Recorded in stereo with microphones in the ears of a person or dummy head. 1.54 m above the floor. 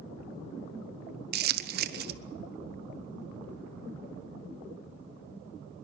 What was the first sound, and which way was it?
Crumpling, 65° right (ahead or behind).